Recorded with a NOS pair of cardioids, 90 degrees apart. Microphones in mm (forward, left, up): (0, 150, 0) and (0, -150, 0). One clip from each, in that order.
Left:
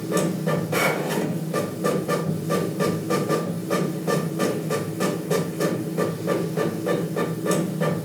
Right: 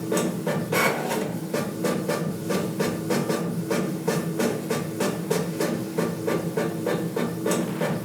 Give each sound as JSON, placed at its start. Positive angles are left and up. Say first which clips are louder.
{"t": 0.0, "sound": "a machine running", "louder": "left 1 dB", "azimuth_deg": -10, "distance_m": 0.9}